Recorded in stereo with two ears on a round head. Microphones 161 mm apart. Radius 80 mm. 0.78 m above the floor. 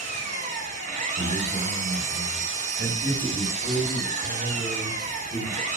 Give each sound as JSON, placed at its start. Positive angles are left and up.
{"t": 0.0, "sound": "an engine running", "side_deg": -40, "distance_m": 1.0}
{"t": 1.2, "sound": "a man speaking", "side_deg": -65, "distance_m": 1.9}